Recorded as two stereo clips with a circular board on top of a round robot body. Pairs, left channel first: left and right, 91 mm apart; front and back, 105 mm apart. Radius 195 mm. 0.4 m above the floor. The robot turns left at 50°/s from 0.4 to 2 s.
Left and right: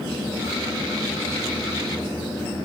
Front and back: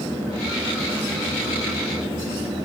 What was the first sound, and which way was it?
Only background noise.